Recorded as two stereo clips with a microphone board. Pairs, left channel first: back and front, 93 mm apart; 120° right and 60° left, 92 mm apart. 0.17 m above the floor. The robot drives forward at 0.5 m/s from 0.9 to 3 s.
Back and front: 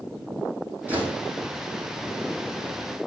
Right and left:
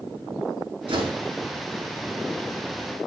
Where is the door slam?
70° left, 6 m.